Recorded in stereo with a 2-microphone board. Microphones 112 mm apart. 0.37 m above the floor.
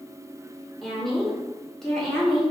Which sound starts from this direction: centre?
A woman speaking, at 0.8 s.